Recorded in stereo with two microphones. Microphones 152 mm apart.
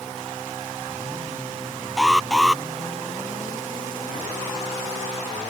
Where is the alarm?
5° right (ahead or behind).